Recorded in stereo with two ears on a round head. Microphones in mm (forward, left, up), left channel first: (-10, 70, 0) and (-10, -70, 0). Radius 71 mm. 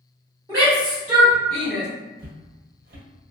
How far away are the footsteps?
About 0.9 m.